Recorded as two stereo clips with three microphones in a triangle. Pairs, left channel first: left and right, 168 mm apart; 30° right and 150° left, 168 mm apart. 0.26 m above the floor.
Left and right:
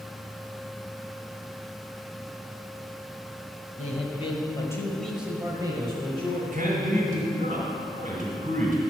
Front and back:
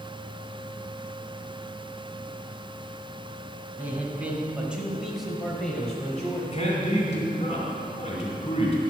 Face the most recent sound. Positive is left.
turn(degrees=-70)